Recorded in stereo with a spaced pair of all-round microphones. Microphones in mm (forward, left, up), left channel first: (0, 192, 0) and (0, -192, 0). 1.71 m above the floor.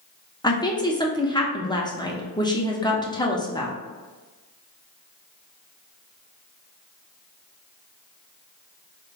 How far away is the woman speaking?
About 0.8 m.